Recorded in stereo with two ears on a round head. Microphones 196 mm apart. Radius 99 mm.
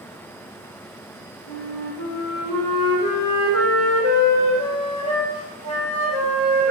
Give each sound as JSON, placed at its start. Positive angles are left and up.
{"t": 1.5, "sound": "a flute", "side_deg": 80, "distance_m": 1.7}